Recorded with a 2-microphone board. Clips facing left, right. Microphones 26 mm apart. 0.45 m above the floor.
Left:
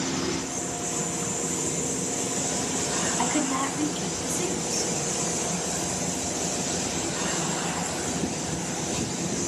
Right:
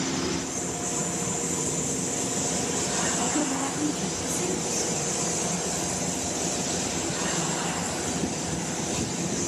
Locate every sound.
3.2 s a woman speaking: 55° left (ahead or behind), 3.5 m